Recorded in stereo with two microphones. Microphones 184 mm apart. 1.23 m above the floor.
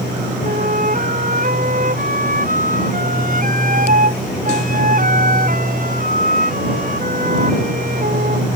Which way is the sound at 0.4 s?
45° right (ahead or behind).